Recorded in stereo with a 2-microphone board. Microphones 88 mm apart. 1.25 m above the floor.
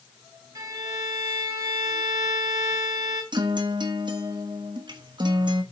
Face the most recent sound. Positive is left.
turn(degrees=-60)  # may be behind; listen again after turning